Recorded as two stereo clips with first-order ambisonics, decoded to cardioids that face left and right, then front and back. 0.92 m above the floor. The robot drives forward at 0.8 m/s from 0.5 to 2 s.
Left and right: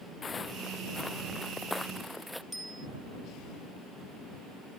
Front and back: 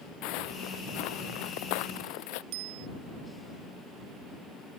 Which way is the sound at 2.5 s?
175° right.